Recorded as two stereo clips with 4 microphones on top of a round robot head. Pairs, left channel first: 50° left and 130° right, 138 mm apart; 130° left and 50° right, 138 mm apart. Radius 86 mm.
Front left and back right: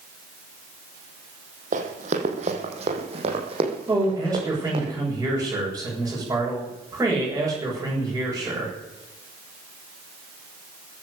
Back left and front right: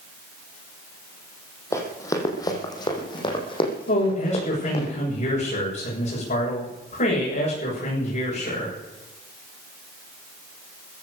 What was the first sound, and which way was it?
Running footsteps, 160° right.